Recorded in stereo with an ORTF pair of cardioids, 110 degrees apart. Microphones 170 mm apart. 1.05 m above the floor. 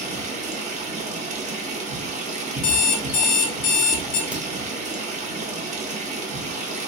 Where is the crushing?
No crushing in this recording.